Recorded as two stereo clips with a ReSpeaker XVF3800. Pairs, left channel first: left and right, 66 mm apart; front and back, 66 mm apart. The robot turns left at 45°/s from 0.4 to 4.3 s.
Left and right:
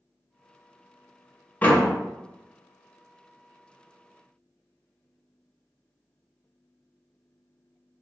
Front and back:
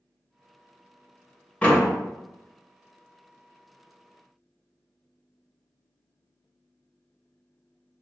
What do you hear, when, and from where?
1.6 s a door slam: 45° left, 0.6 m; by 1.9 s 35° left, 0.6 m